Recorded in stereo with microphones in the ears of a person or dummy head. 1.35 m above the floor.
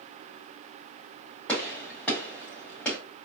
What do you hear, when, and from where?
1.5 s a gunshot: 10° left (ahead or behind), 2.5 m